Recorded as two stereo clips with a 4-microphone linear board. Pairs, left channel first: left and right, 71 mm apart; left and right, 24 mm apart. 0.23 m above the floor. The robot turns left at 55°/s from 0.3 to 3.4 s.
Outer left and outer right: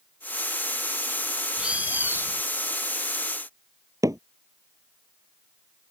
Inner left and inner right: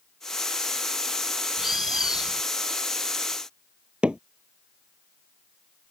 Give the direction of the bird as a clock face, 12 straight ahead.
12 o'clock.